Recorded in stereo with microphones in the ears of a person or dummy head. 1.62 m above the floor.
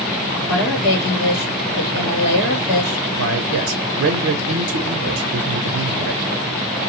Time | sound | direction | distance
0.5 | a woman speaking | 75° left (ahead or behind) | 1.5 m
3.2 | a man speaking | 70° right (ahead or behind) | 0.6 m